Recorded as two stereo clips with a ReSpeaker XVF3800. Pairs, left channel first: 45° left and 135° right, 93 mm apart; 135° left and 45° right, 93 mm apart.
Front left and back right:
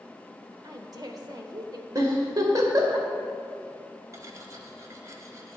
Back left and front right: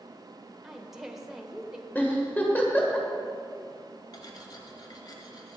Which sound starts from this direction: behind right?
A woman speaking, at 0.6 s.